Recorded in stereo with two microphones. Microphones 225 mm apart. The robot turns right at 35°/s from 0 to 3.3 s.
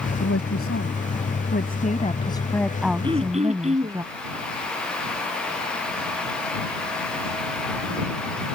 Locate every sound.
0.2 s a woman speaking: 90° left; by 4.0 s 165° right
3.0 s throat clearing: 20° right (ahead or behind); by 4.0 s 30° right (ahead or behind)